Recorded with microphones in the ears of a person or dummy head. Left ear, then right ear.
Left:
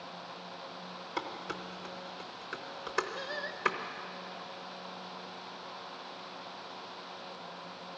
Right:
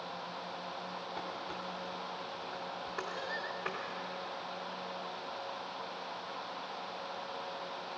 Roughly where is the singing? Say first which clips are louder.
Even; centre.